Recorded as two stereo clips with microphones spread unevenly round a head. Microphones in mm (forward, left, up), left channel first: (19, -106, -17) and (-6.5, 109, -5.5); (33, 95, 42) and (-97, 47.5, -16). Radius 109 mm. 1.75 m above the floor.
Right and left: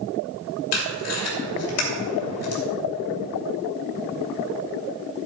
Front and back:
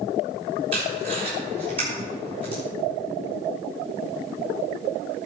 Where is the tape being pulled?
85° right, 2.5 m.